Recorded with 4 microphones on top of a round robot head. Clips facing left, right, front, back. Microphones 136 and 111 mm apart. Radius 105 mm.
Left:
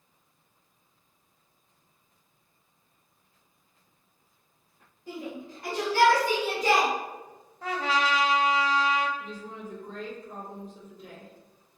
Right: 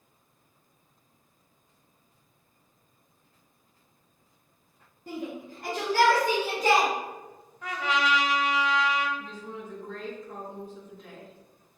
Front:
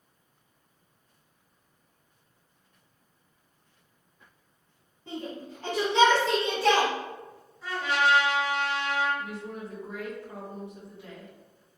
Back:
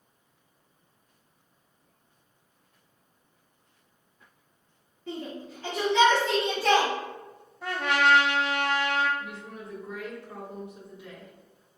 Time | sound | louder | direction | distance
5.1 | a shout | right 2 dB, back 1 dB | 65° right | 1.4 m
7.6 | a trumpet | left 1 dB, back 2 dB | 150° left | 0.5 m
9.2 | a woman speaking | even, front 3 dB | 50° right | 1.7 m